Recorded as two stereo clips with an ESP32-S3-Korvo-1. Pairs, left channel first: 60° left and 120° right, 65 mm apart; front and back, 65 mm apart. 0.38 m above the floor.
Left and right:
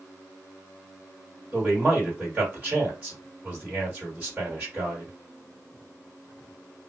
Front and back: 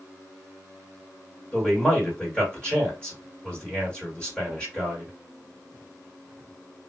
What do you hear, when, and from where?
1.5 s a man speaking: 60° right, 1.8 m